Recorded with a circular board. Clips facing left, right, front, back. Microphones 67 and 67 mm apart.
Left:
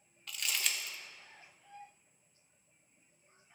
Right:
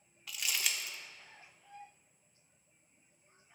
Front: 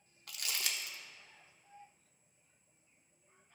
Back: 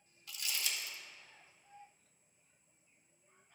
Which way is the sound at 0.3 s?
5° right.